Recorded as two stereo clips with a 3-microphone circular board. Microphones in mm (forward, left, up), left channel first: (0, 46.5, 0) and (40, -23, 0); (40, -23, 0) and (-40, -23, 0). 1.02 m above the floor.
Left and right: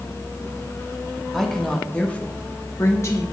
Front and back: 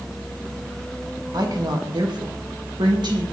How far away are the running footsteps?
No running footsteps in this recording.